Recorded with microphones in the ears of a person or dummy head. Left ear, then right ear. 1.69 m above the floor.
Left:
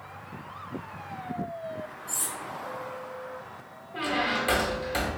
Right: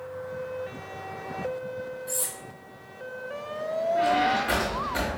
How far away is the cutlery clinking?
About 1.3 m.